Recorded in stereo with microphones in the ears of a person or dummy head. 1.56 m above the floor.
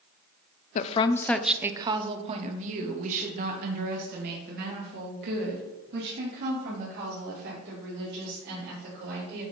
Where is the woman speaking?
40° left (ahead or behind), 0.6 m; by 9.4 s 65° right (ahead or behind), 5.5 m.